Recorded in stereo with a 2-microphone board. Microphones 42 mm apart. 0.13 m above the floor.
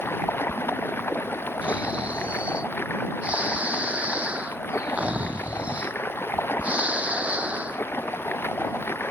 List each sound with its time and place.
0.0 s running water: 55° left (ahead or behind)
1.6 s snoring: 30° right (ahead or behind)